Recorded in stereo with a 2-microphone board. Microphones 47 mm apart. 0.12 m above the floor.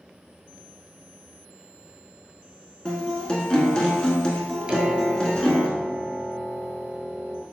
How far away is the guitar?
About 0.8 m.